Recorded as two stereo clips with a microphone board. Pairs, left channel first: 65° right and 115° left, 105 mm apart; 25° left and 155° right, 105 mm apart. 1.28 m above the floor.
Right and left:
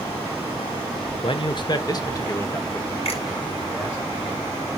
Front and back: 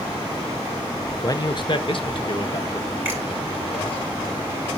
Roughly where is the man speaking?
Ahead right.